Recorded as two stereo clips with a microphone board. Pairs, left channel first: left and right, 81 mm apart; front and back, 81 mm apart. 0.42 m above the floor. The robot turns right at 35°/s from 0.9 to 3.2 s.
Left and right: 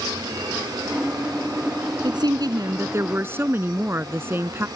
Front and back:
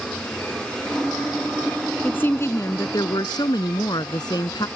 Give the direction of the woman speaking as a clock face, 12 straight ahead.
2 o'clock.